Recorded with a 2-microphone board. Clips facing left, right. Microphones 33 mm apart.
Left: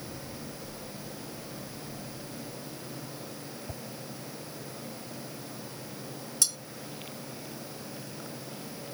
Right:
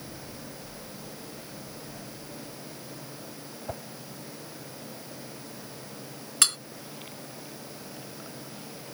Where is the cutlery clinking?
55° right (ahead or behind).